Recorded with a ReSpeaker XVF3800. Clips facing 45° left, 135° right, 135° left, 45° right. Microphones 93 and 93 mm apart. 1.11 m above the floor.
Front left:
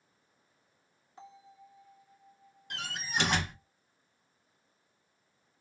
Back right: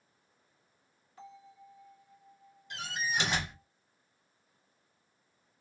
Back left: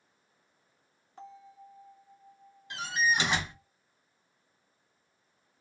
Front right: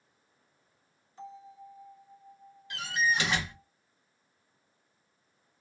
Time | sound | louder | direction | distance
1.2 | a bell | back right 1 dB, front right 3 dB | 110° left | 1.6 m
2.7 | a door slam | back right 2 dB, even | 70° left | 1.3 m